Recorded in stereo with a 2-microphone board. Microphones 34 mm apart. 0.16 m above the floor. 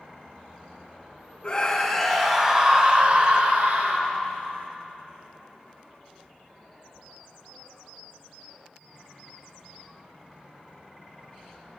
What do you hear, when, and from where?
1.4 s a scream: 25° left (ahead or behind), 1.1 m; by 4.2 s 50° right (ahead or behind), 2 m